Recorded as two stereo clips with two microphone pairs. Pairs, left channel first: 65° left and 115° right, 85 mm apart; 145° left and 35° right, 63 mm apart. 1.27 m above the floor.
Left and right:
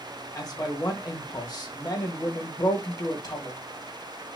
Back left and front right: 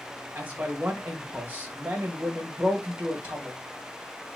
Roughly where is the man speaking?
Ahead left.